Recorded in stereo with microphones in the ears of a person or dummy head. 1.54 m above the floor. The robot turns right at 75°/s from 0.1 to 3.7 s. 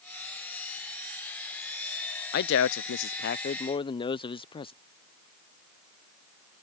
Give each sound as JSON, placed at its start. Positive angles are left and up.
{"t": 2.3, "sound": "a man speaking", "azimuth_deg": 55}